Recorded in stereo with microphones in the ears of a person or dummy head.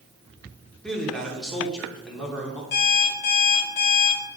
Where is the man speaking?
5° left (ahead or behind), 1.8 m.